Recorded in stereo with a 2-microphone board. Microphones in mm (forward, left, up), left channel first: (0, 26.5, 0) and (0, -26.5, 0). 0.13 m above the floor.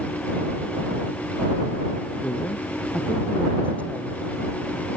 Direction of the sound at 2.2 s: 30° left (ahead or behind).